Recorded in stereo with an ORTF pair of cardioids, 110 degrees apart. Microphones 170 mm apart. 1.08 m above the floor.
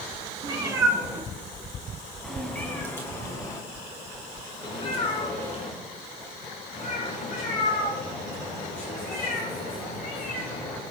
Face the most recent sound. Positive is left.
turn(degrees=60)